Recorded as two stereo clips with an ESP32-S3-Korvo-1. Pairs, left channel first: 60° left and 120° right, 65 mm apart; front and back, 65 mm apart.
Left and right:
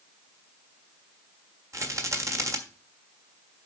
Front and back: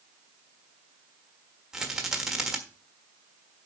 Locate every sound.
1.7 s a rattle: 100° right, 1.4 m